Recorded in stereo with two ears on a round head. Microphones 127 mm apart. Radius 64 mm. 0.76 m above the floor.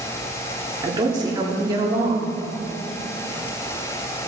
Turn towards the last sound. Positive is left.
turn(degrees=-30)  # may be behind; listen again after turning